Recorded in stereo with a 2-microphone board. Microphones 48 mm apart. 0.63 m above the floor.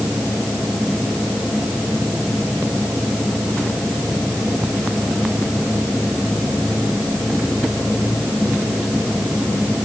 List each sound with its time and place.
Only background noise.